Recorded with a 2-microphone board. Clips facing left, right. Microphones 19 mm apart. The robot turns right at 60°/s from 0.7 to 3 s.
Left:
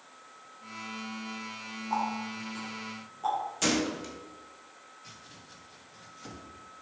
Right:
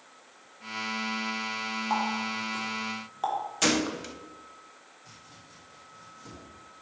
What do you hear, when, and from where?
1.9 s a running tap: 55° right (ahead or behind), 3.5 m; by 3.4 s 60° right (ahead or behind), 3.5 m
3.6 s a gunshot: 15° right (ahead or behind), 0.9 m
5.0 s chopping: 80° left, 3 m